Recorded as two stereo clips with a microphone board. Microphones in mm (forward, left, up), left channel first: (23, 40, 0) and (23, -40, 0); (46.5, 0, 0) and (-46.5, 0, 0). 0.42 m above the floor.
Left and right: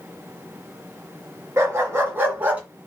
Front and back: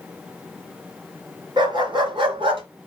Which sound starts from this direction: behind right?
A dog barking, at 1.6 s.